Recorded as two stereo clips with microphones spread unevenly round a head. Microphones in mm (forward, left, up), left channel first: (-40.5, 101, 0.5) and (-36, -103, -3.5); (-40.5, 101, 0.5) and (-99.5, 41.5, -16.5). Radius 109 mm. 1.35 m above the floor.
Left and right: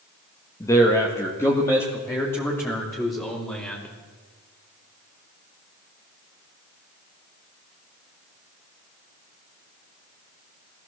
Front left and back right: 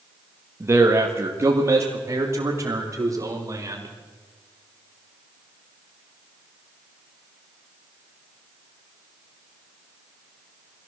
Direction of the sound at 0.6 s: 165° left.